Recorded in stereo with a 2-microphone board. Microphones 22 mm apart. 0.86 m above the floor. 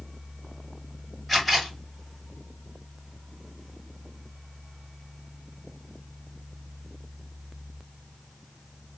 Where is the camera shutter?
5° right (ahead or behind), 2.5 m.